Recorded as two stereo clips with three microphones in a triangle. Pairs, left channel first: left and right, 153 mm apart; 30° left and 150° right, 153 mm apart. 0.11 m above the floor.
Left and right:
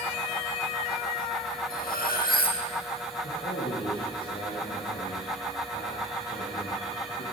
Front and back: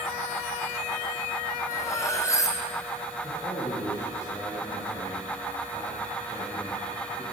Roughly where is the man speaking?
Left.